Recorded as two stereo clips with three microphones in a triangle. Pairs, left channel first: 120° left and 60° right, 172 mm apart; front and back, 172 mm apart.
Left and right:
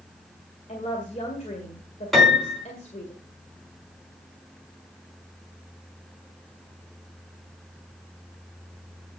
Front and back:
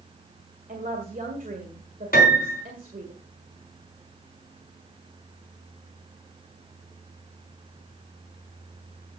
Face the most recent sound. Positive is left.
turn(degrees=30)